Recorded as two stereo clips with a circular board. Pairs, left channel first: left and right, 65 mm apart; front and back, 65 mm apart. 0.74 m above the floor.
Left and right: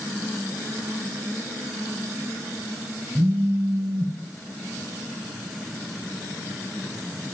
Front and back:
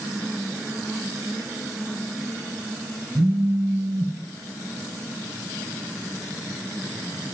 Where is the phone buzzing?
130° right, 1.3 m.